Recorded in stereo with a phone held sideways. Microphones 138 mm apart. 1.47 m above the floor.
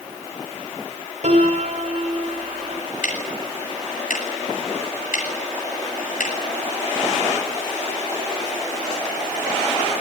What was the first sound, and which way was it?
A piano, 55° right (ahead or behind).